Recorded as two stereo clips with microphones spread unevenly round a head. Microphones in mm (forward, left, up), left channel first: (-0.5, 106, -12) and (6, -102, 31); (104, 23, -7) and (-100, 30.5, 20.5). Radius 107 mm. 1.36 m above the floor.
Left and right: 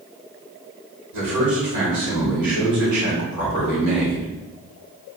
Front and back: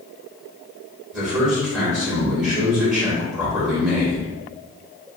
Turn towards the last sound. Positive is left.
turn(degrees=-90)